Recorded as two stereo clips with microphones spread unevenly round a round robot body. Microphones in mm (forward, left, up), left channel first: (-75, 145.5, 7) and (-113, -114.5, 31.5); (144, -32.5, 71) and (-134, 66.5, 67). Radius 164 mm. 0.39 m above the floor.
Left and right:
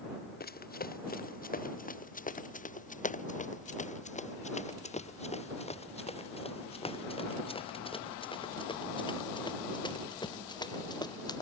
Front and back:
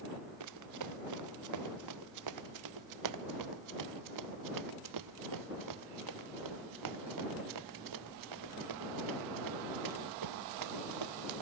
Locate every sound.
0.4 s running footsteps: 135° left; by 11.4 s 155° left